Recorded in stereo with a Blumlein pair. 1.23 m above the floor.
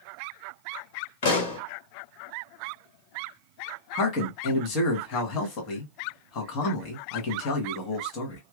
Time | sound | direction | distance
1.2 | a pop | 55° left | 1.1 m
4.0 | a man speaking | 40° left | 1.1 m